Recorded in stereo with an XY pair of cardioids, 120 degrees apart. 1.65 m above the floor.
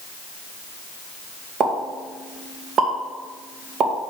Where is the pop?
50° right, 2.5 m.